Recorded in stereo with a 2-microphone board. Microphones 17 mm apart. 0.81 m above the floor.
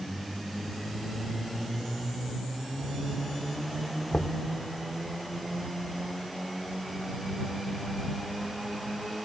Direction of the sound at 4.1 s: 80° left.